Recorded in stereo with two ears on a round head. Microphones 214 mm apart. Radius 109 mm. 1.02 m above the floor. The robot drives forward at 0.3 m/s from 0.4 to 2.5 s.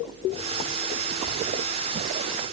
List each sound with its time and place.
Only background noise.